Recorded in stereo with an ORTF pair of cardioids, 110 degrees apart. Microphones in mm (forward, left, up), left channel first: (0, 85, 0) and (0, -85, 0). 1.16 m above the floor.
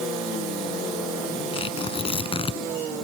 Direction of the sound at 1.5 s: 30° left.